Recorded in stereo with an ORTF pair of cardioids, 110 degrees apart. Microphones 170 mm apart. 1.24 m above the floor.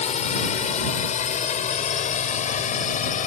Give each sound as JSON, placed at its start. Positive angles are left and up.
{"t": 0.0, "sound": "a drone", "azimuth_deg": 45}